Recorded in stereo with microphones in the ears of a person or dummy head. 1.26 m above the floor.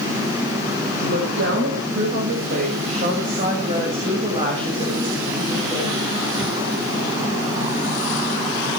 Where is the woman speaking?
70° right (ahead or behind), 7 m; by 6.1 s 20° right (ahead or behind), 7.5 m.